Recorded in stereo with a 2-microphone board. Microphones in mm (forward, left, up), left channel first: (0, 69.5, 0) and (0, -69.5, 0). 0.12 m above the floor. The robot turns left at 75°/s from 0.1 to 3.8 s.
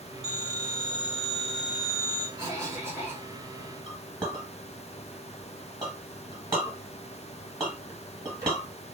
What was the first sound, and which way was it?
A phone ringing, 105° left.